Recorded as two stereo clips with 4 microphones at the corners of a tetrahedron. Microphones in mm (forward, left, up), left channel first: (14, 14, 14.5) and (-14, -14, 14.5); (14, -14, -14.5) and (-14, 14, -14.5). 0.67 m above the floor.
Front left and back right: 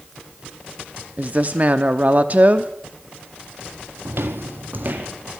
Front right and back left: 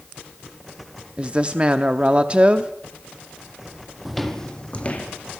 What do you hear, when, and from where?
1.2 s a woman speaking: 175° right, 0.8 m
4.0 s footsteps: 140° right, 1.5 m; by 5.0 s 100° right, 2 m